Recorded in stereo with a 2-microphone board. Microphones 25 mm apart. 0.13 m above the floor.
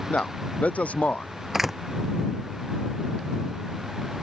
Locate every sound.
0.1 s a man speaking: 75° left (ahead or behind)
1.5 s a door slam: 15° right (ahead or behind)